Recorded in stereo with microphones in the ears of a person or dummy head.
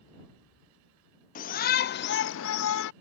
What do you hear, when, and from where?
1.4 s a shout: 45° left (ahead or behind); by 2.9 s 60° left (ahead or behind)